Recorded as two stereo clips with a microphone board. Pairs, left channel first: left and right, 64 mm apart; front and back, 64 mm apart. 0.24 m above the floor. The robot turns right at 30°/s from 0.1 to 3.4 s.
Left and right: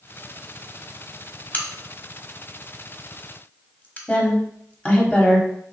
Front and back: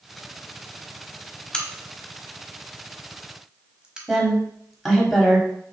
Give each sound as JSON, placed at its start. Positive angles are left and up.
{"t": 1.5, "sound": "a crack", "azimuth_deg": 60, "distance_m": 0.8}
{"t": 4.1, "sound": "a woman speaking", "azimuth_deg": 90, "distance_m": 1.1}